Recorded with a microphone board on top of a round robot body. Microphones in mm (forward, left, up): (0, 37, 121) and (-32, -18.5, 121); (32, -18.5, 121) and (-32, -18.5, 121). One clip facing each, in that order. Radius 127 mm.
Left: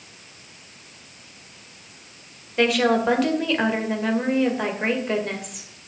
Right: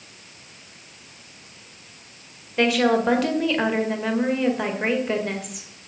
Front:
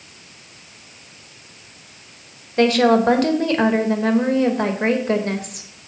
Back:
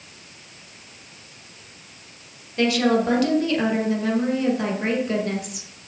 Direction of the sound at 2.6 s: 30° right.